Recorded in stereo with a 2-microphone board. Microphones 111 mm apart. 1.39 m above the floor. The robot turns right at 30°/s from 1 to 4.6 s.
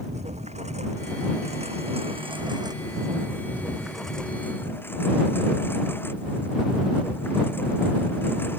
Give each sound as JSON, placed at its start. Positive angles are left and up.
{"t": 0.0, "sound": "a lawn mower", "azimuth_deg": -90}